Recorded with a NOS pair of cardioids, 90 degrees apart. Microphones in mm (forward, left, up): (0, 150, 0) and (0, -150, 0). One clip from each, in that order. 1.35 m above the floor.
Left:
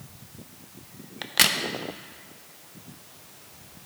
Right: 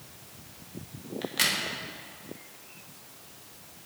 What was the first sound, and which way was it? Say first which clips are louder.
A crack: left 5 dB; 40° left.